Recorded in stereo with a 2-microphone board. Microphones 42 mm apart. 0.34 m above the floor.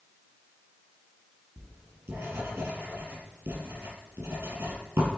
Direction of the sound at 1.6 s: 85° right.